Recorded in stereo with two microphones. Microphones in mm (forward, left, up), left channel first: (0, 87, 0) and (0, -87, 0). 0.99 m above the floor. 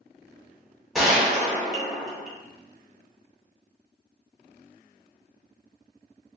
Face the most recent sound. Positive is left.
turn(degrees=0)  # may be behind; listen again after turning